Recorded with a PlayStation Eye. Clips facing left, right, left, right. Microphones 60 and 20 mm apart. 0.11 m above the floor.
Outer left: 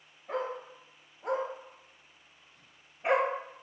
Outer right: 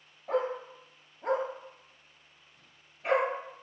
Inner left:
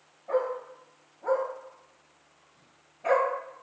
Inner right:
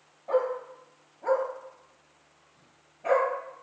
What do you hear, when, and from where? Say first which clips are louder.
0.3 s a dog barking: outer right 4 dB, inner right 2 dB; 60° right (ahead or behind), 1.2 m; by 3.3 s 25° left (ahead or behind), 0.8 m